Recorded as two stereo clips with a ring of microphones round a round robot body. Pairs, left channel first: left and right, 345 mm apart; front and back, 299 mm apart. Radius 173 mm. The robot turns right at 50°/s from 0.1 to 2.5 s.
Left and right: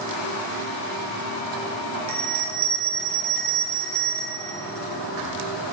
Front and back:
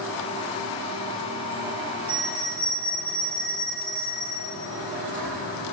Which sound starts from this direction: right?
A bell, at 2.1 s.